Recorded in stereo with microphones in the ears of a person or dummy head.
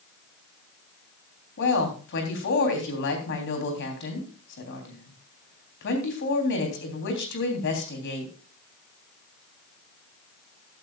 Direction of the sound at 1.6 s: 65° left (ahead or behind).